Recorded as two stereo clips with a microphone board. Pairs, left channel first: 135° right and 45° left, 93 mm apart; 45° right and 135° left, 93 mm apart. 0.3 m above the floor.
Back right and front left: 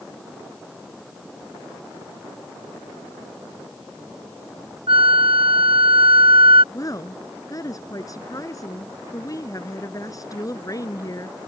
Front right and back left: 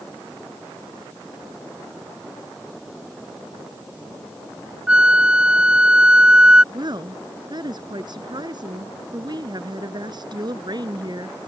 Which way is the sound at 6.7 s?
175° left.